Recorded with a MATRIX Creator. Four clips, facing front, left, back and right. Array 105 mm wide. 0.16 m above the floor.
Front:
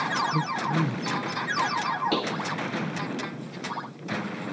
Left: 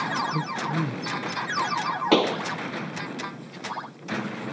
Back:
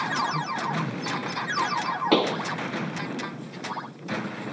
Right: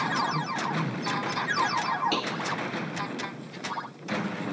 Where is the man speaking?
40° left.